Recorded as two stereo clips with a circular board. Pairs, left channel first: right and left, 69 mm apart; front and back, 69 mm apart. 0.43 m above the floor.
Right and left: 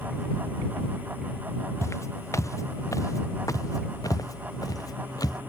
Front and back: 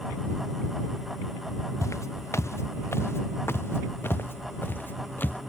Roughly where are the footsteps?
Ahead right.